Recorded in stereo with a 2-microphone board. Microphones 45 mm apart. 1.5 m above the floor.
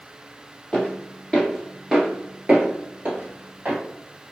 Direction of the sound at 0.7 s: 15° left (ahead or behind).